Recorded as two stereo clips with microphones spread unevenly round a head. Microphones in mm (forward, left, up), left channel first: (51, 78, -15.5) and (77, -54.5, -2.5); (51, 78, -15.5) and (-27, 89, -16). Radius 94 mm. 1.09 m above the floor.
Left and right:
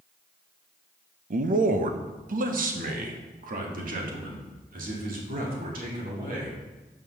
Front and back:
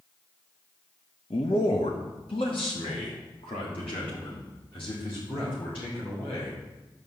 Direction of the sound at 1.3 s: 55° right.